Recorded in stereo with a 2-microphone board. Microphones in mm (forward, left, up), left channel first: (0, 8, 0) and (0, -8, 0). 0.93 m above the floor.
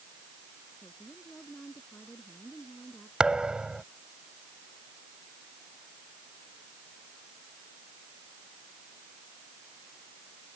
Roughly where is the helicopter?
No helicopter in this recording.